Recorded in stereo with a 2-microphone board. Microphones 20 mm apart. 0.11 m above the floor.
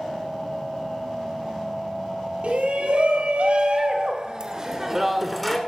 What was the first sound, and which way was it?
A shout, 65° right (ahead or behind).